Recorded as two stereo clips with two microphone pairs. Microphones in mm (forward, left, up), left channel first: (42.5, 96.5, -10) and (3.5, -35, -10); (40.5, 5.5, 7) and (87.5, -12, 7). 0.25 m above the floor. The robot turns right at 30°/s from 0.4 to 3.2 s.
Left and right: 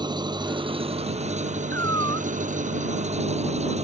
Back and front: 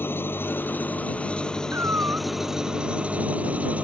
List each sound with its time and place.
0.0 s an engine running: 160° right; by 3.9 s 80° right
1.7 s a cat meowing: straight ahead; by 2.3 s 20° left